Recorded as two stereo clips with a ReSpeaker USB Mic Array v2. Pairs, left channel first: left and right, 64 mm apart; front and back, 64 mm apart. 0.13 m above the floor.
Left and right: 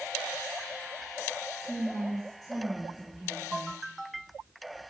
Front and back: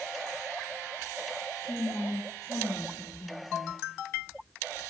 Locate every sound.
1.6 s a woman speaking: 5° left, 6 m; by 3.8 s 20° right, 3.5 m